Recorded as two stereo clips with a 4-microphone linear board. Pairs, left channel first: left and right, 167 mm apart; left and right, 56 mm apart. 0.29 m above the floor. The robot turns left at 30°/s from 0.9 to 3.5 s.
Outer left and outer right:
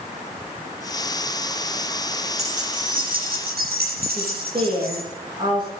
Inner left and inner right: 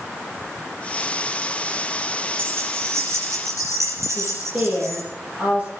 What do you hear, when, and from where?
2.4 s keys jangling: 45° right, 6 m; by 5.0 s 80° right, 6 m
4.1 s a woman speaking: 30° right (ahead or behind), 9 m